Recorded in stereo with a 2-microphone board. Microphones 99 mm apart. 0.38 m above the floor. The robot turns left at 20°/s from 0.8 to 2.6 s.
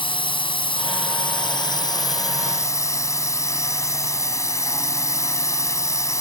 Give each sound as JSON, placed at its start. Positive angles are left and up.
{"t": 0.0, "sound": "a drone", "azimuth_deg": 70}